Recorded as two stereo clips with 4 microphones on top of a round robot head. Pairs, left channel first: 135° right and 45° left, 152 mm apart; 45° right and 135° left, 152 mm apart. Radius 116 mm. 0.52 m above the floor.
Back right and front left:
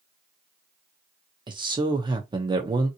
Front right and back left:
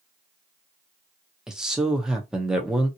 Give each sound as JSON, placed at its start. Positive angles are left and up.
{"t": 1.5, "sound": "a man speaking", "azimuth_deg": 50, "distance_m": 0.8}